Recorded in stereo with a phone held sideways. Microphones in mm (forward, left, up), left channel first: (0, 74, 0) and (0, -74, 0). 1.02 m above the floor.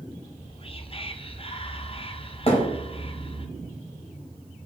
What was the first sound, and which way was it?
Whispering, 40° left (ahead or behind).